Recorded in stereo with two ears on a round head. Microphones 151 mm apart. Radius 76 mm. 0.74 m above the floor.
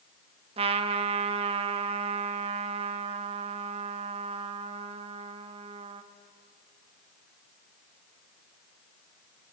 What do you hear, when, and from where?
0.6 s a trumpet: 35° right (ahead or behind), 1.0 m